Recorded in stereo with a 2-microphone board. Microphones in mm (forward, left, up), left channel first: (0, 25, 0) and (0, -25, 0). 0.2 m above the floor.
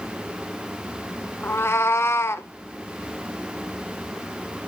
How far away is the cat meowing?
About 1.1 m.